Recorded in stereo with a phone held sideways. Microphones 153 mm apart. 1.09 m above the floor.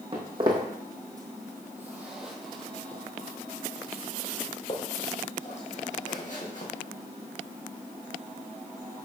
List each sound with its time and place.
0.1 s footsteps: 35° right (ahead or behind), 1.9 m; by 6.7 s 60° left (ahead or behind), 2.5 m